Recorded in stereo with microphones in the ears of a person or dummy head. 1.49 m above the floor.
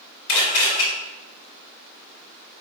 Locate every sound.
0.3 s a camera shutter: 50° left (ahead or behind), 1.7 m